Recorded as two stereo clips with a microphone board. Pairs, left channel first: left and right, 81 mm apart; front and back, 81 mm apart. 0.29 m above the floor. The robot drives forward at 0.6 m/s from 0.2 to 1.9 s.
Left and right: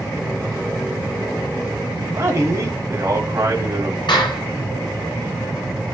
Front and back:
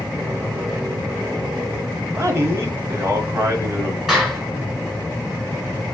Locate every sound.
2.1 s a man speaking: 135° right, 1.9 m
4.1 s a clap: 90° left, 3.5 m